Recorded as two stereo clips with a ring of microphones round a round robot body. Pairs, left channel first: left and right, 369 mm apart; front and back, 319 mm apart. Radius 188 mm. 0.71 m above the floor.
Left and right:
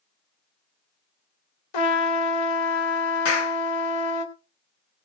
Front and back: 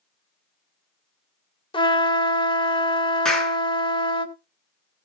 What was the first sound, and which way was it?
A trumpet, 75° left.